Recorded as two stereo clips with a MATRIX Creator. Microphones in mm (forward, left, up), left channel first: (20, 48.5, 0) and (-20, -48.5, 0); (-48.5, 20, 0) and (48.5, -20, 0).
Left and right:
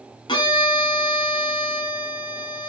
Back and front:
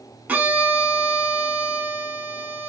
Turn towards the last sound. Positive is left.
turn(degrees=50)